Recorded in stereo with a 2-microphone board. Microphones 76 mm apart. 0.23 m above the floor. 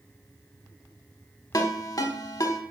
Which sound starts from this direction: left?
A ringtone, at 1.5 s.